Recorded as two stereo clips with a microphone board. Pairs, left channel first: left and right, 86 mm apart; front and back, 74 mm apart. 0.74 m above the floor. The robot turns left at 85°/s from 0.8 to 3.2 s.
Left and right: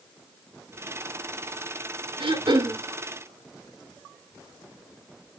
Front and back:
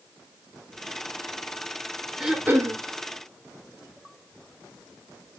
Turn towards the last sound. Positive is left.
turn(degrees=-175)